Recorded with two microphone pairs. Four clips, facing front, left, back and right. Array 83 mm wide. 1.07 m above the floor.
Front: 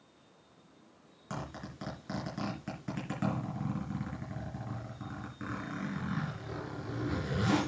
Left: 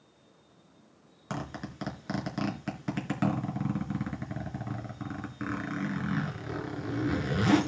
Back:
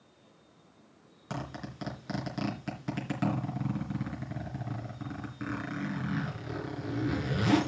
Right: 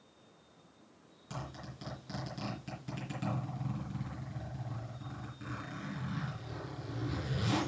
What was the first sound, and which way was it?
A zipper, 100° left.